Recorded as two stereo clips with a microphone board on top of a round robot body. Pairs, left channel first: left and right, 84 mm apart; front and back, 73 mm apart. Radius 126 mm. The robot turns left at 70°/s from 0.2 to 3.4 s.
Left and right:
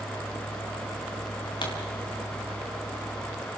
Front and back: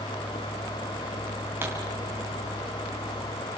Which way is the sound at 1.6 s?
120° left.